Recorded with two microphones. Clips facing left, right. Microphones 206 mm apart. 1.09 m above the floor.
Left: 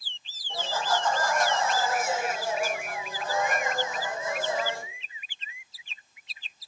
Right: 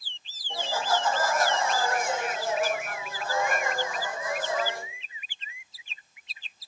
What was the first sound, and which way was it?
Laughter, 15° right (ahead or behind).